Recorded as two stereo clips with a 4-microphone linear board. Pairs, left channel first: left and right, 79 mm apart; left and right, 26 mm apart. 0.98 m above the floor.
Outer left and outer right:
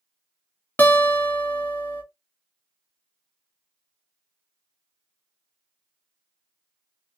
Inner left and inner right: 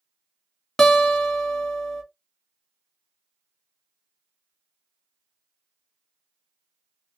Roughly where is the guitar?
Left.